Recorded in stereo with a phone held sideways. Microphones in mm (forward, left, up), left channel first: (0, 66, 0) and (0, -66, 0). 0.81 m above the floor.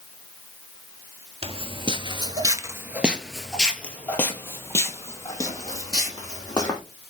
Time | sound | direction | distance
1.4 | footsteps | 45° right (ahead or behind) | 1.1 m